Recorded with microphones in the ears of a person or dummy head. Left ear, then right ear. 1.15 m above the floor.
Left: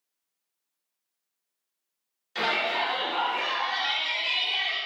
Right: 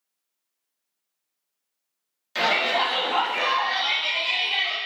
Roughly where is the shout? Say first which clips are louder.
Right 4 dB; centre.